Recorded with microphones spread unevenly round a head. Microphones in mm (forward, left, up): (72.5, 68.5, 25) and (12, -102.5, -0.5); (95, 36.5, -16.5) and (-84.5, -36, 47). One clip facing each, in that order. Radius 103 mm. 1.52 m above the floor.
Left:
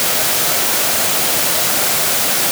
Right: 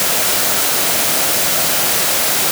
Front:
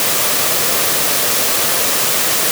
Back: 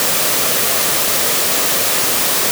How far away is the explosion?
I don't hear an explosion.